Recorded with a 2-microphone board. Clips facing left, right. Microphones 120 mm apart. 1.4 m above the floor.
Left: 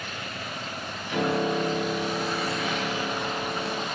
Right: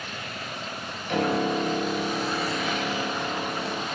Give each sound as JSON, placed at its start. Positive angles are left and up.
{"t": 1.1, "sound": "a piano", "side_deg": -65, "distance_m": 8.5}